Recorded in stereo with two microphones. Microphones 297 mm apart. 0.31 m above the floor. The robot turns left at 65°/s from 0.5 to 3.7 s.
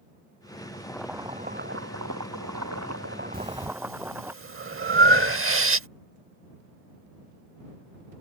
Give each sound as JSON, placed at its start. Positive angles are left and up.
{"t": 0.7, "sound": "boiling", "azimuth_deg": 20}
{"t": 3.3, "sound": "breathing", "side_deg": -30}